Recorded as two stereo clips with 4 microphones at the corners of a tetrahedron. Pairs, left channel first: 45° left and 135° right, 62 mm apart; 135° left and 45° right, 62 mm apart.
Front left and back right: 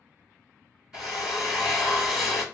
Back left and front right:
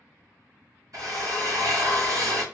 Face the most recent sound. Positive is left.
turn(degrees=-55)